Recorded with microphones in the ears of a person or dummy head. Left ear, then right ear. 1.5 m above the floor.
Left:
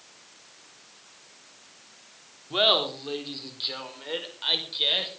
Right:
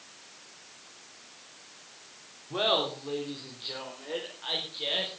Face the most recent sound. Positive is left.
turn(degrees=80)